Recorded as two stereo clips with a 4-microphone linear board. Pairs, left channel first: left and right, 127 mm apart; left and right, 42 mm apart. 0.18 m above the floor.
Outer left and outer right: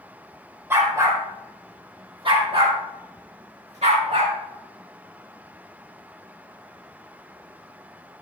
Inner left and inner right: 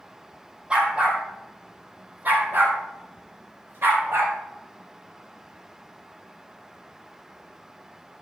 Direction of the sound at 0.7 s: 20° right (ahead or behind).